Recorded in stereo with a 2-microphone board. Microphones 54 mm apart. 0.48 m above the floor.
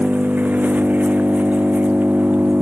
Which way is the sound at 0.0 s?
30° right (ahead or behind).